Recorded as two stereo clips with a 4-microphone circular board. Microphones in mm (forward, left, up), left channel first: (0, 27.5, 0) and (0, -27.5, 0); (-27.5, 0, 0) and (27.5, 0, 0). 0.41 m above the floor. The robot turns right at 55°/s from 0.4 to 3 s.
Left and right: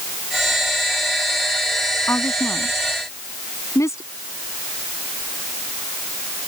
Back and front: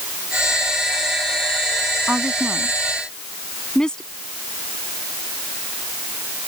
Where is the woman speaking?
55° left; by 4.1 s 105° left.